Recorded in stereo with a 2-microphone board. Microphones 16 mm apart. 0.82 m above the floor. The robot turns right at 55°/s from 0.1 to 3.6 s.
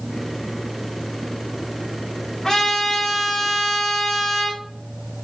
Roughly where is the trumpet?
Ahead left.